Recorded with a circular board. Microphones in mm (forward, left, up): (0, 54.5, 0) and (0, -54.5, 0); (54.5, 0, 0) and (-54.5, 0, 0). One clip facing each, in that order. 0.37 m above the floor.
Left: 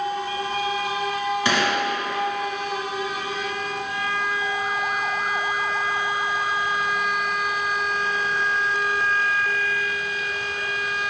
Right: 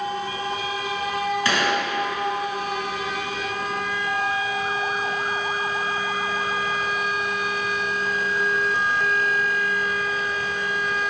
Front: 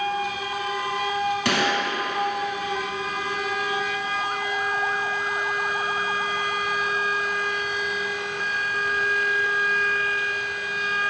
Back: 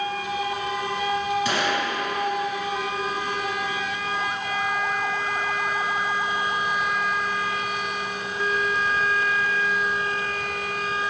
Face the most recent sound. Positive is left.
turn(degrees=20)